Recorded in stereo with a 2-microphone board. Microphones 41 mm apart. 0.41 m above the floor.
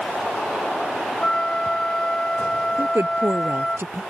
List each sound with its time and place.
1.2 s a flute: 20° left (ahead or behind)
2.8 s a woman speaking: 70° right (ahead or behind)